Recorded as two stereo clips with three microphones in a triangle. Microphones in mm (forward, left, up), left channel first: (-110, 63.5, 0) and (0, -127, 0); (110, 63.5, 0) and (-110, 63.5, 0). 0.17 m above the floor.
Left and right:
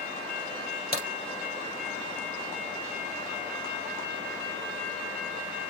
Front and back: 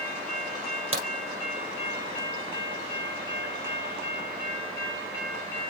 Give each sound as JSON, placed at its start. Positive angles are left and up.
{"t": 0.9, "sound": "a crack", "azimuth_deg": 165, "distance_m": 3.5}